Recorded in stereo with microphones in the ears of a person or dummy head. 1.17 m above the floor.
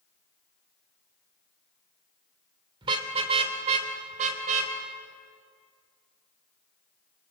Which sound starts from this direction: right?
A car horn, at 2.8 s.